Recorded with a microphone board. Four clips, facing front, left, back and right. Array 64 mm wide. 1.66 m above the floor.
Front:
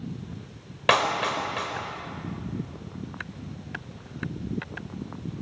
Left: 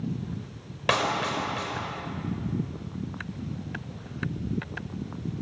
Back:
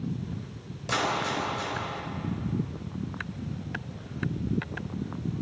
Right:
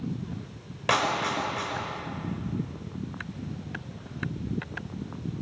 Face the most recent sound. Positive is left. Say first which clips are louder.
# even, front 5 dB
turn(degrees=5)